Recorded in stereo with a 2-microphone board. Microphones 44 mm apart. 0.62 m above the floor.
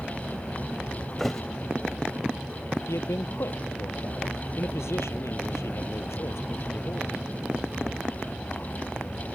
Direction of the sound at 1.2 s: 10° left (ahead or behind).